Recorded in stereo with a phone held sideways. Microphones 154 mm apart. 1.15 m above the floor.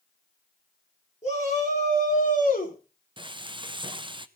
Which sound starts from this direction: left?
A shout, at 1.2 s.